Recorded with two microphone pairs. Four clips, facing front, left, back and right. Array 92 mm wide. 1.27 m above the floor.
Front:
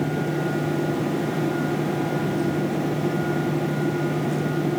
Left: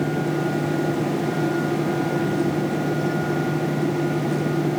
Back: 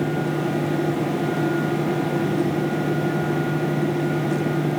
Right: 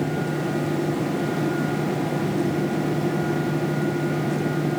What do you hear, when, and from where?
Only background noise.